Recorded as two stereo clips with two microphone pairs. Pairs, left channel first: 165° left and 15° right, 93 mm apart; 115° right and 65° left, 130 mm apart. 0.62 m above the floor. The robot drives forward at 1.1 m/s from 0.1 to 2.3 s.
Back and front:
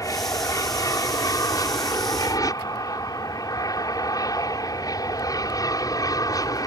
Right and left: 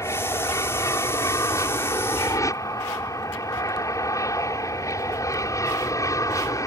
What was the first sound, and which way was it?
An aircraft, 165° right.